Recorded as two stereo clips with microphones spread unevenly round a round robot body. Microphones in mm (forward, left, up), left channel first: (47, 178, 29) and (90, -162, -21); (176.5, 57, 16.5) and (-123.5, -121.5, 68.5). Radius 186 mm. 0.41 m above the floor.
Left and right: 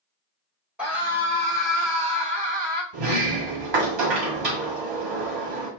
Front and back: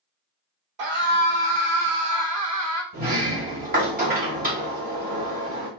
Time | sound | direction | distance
0.8 | a scream | 165° right | 1.9 m
2.9 | a sliding door | 80° right | 1.6 m